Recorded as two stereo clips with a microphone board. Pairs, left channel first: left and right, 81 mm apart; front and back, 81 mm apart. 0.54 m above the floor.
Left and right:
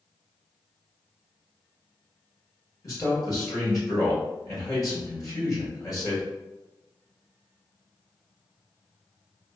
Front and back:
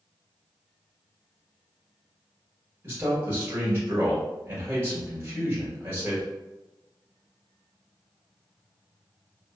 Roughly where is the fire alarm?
No fire alarm in this recording.